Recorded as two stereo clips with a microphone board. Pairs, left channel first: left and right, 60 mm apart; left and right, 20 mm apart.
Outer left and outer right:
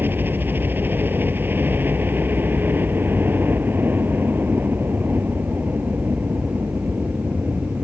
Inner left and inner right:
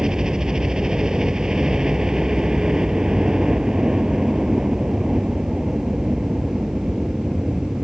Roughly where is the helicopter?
Right.